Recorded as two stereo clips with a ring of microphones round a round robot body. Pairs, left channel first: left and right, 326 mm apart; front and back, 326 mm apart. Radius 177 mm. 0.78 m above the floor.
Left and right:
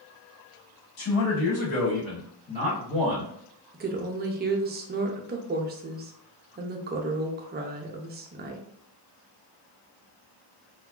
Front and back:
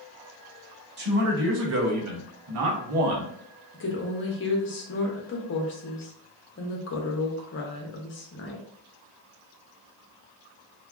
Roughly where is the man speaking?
Behind left.